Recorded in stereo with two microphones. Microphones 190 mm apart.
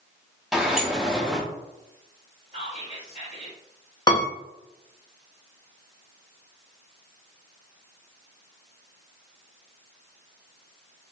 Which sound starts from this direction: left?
A piano, at 4.1 s.